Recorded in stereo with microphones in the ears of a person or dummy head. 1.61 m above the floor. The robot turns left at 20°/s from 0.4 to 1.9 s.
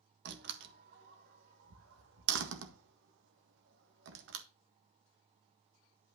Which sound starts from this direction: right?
A door slam, at 0.2 s.